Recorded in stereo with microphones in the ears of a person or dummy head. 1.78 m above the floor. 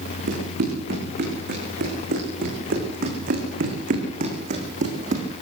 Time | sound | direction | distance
0.3 | running footsteps | 65° right (ahead or behind) | 7.5 m